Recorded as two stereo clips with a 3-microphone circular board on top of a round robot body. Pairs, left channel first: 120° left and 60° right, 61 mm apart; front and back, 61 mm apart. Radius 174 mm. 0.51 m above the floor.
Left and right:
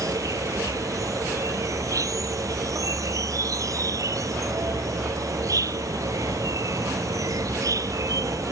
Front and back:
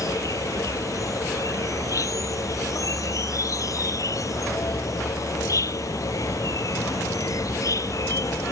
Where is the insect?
30° right.